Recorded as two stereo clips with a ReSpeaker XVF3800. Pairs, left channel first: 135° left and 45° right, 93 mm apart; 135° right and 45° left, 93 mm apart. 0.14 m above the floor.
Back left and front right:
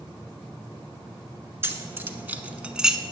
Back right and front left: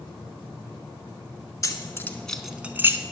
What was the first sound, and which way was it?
Keys jangling, 100° right.